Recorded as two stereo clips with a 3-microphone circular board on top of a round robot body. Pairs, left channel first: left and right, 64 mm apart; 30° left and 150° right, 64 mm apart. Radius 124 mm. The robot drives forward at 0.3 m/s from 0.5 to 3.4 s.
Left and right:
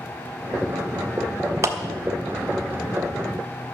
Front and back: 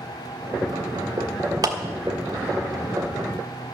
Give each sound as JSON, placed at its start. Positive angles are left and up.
{"t": 1.6, "sound": "a clap", "azimuth_deg": -135, "distance_m": 1.4}